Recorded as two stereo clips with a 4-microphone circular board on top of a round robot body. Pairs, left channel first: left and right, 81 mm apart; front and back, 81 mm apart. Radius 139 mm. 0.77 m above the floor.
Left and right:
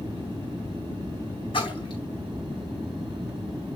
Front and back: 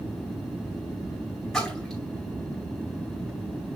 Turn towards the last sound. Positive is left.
turn(degrees=80)